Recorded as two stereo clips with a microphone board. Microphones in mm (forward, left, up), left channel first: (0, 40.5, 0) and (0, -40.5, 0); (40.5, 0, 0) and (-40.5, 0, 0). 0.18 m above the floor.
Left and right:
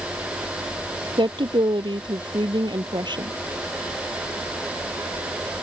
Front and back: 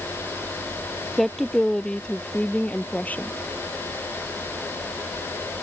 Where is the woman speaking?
90° right; by 3.3 s 70° right.